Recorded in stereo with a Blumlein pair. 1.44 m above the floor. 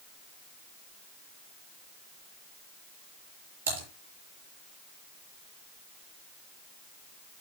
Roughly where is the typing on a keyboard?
Ahead right.